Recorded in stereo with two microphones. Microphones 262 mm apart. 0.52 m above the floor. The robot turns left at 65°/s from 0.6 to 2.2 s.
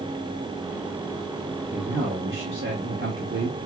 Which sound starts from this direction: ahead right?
A man speaking, at 1.7 s.